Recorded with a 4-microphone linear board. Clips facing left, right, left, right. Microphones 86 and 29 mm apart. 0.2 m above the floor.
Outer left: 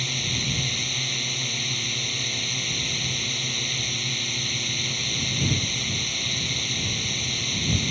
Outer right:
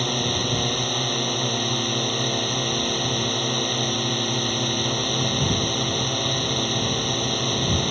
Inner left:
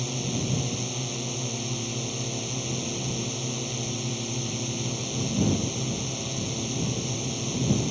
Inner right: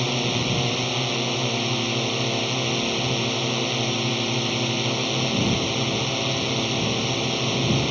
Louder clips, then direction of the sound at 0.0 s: Outer right 7 dB, inner right 7 dB; 45° right (ahead or behind).